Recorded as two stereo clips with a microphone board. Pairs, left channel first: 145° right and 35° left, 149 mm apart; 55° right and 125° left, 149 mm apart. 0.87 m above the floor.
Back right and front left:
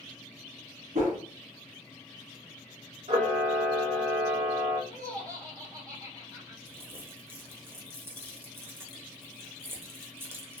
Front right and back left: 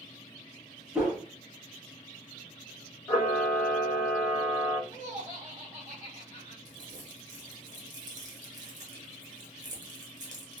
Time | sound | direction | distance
0.9 | a whoosh | 40° left | 1.2 m
3.1 | a camera shutter | 15° left | 1.2 m
4.9 | laughter | 95° left | 1.1 m
6.7 | crumpling | 105° left | 0.9 m